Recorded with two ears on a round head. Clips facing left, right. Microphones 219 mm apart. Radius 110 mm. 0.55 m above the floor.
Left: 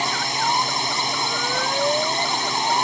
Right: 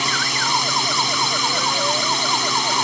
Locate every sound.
0.0 s a drone: 20° right (ahead or behind)